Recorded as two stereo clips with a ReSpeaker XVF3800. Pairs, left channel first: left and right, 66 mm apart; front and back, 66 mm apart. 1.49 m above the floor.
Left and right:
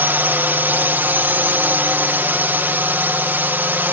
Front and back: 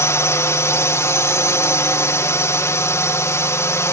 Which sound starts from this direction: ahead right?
A drone, at 0.0 s.